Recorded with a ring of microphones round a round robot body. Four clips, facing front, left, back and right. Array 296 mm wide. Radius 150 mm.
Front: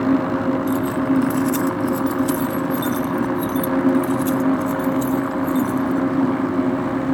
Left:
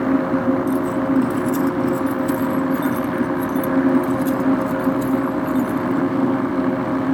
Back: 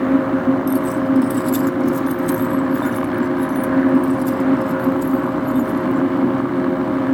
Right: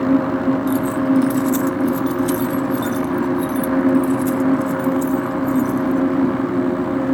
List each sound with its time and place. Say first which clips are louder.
0.7 s keys jangling: right 2 dB, back 2 dB; 110° right; by 6.0 s 40° right